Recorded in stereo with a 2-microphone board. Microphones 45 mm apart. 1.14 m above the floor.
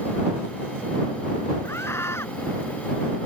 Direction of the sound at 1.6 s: 80° left.